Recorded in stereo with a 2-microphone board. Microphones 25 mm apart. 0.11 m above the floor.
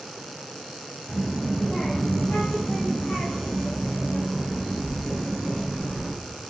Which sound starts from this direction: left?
A child speaking, at 1.1 s.